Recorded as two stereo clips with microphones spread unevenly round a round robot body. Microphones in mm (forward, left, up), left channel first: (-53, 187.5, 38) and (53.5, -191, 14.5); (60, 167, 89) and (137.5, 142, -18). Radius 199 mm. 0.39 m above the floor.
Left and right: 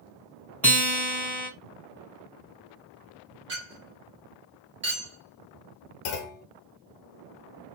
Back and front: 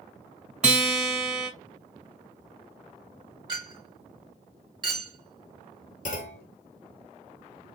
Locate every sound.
0.6 s a guitar: 20° left, 2.5 m
3.5 s a clink: 10° right, 2.5 m
6.0 s a clunk: 135° left, 0.9 m